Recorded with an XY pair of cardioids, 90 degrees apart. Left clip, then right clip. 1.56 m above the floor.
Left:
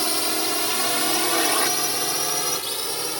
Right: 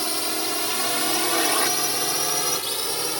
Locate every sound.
0.0 s a drone: 15° left; by 3.2 s 15° right